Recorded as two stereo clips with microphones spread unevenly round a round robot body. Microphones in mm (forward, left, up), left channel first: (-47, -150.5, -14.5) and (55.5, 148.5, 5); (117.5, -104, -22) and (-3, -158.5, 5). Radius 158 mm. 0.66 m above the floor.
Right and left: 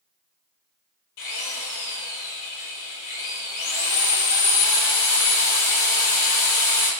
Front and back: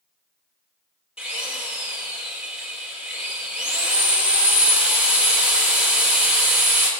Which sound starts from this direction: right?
A drill, at 1.2 s.